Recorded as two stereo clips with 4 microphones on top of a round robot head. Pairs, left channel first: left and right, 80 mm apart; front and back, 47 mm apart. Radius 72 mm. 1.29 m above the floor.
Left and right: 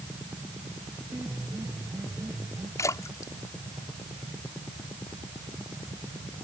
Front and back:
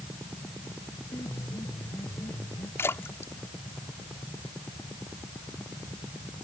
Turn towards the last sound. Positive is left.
turn(degrees=35)